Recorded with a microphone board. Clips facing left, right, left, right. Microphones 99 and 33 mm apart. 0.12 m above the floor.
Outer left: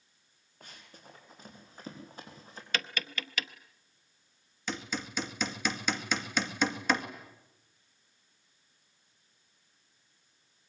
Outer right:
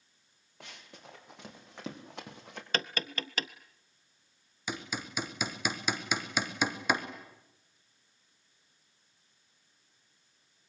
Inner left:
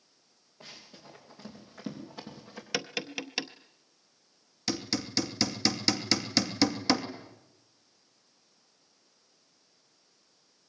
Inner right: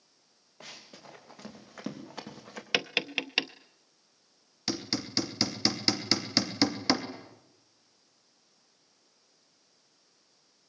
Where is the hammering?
10° right (ahead or behind), 2 m.